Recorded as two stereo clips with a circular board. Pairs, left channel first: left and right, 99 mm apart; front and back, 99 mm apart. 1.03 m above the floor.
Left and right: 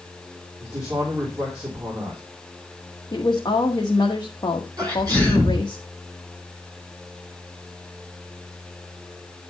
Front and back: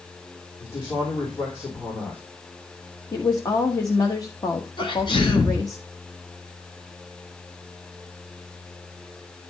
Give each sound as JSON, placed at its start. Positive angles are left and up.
{"t": 0.6, "sound": "a man speaking", "azimuth_deg": -30, "distance_m": 3.5}
{"t": 3.1, "sound": "a woman speaking", "azimuth_deg": 45, "distance_m": 1.3}
{"t": 4.8, "sound": "a sneeze", "azimuth_deg": -35, "distance_m": 7.5}